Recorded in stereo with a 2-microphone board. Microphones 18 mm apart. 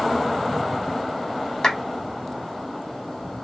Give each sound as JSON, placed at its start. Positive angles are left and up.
{"t": 1.6, "sound": "a clap", "side_deg": 40, "distance_m": 1.2}